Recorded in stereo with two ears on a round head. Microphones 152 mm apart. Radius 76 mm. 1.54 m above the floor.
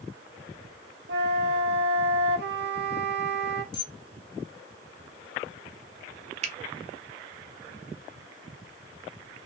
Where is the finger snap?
40° right (ahead or behind), 0.5 m.